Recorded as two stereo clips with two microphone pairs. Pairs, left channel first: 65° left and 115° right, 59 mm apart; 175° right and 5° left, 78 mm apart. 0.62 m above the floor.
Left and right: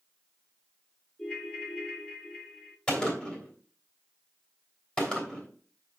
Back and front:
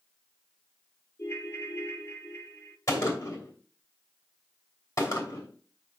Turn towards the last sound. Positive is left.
turn(degrees=135)